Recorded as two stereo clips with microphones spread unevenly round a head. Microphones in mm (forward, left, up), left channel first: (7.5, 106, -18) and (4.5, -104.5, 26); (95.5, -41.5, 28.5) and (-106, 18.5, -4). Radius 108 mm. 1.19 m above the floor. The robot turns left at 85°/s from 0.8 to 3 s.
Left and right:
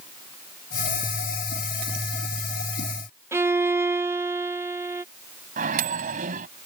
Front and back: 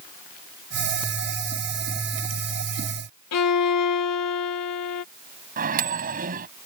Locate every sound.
3.3 s a violin: 10° right
5.6 s a microwave: 145° right